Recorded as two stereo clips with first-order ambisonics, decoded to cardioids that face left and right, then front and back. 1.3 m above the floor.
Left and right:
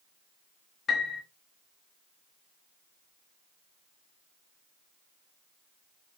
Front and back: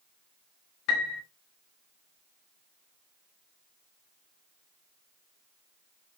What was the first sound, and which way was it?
A piano, 20° left.